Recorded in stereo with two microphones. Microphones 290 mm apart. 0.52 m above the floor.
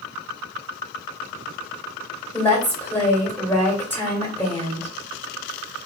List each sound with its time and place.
2.3 s a woman speaking: 5° left (ahead or behind), 1.8 m